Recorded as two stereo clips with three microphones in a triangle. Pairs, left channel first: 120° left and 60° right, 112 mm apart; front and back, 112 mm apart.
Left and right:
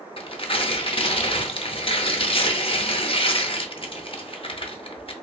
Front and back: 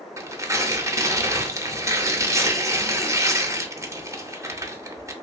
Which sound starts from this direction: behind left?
Tearing paper, at 0.2 s.